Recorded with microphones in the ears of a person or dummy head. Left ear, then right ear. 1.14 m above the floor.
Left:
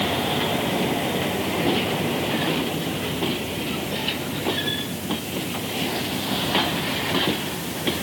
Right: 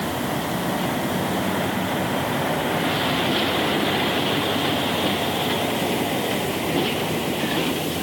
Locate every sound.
Only background noise.